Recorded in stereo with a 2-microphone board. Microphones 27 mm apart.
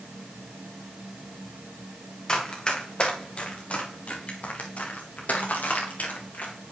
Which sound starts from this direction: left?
Running footsteps, at 2.3 s.